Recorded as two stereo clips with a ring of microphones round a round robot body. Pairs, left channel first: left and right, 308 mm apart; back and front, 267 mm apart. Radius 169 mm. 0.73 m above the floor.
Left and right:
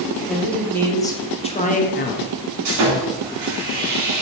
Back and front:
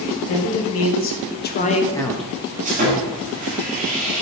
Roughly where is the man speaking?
Behind.